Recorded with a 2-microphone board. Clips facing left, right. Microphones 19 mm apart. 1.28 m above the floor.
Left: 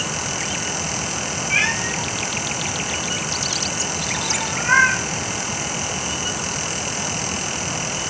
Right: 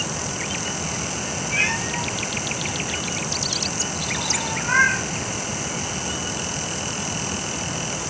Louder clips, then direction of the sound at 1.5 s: Left 3 dB; 55° left (ahead or behind).